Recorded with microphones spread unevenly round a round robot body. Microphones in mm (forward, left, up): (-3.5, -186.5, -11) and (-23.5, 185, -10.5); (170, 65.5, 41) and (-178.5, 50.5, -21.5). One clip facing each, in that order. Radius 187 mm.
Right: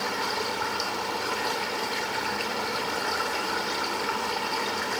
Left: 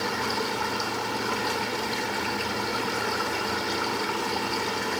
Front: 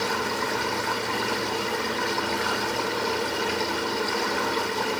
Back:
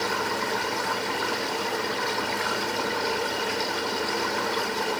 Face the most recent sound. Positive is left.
No sound to turn to.